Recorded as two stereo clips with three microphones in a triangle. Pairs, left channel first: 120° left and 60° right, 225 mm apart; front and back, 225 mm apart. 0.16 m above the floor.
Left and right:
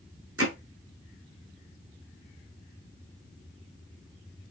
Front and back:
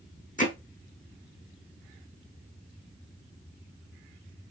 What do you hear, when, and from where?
0.4 s hammering: 55° right, 2.5 m